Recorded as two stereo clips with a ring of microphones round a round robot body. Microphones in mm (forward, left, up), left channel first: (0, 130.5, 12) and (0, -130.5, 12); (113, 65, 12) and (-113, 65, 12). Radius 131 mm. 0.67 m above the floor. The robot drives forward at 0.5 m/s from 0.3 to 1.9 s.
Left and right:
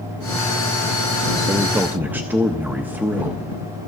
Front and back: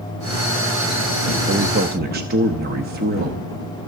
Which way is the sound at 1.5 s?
160° right.